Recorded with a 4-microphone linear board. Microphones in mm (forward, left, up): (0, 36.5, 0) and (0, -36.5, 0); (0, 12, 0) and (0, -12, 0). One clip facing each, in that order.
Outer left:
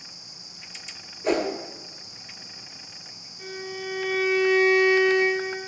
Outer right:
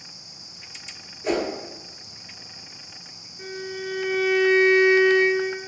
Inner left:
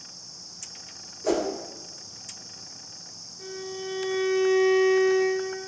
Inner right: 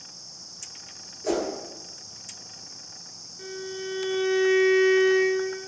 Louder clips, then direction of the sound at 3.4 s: Outer right 2 dB, inner right 1 dB; 40° right (ahead or behind).